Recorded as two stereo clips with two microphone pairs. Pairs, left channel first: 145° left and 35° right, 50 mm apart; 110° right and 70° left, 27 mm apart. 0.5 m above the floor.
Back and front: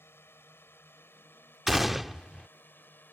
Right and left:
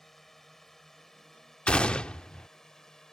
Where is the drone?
170° left; by 3.1 s 175° right.